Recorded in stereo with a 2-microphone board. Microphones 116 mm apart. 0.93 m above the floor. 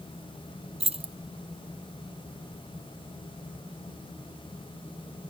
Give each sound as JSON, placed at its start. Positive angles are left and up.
{"t": 0.8, "sound": "keys jangling", "side_deg": -55, "distance_m": 0.5}